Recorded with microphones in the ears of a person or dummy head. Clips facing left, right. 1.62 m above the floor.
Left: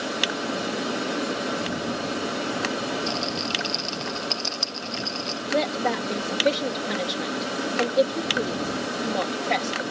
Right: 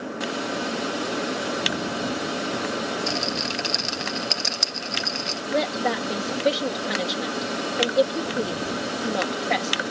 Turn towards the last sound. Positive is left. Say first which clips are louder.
# even
turn(degrees=-10)  # may be behind; listen again after turning